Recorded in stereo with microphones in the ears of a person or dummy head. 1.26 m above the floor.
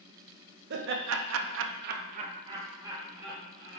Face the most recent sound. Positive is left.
turn(degrees=-5)  # may be behind; listen again after turning